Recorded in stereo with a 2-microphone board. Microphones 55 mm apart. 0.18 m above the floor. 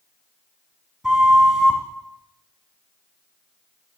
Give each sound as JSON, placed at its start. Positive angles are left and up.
{"t": 1.0, "sound": "a flute", "side_deg": -10, "distance_m": 1.2}